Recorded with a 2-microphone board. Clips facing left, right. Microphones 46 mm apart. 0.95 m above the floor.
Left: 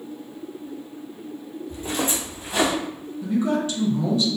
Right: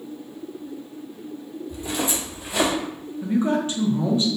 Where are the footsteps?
35° left (ahead or behind), 1.1 m; by 2.7 s 45° left (ahead or behind), 1.5 m.